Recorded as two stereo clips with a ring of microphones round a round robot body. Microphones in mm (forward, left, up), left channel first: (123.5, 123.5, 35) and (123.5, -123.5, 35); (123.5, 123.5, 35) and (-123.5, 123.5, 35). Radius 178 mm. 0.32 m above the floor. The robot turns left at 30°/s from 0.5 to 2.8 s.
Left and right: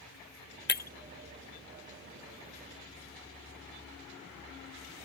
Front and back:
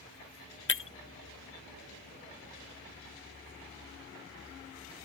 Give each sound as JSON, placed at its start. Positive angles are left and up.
{"t": 0.7, "sound": "breaking glass", "azimuth_deg": 40}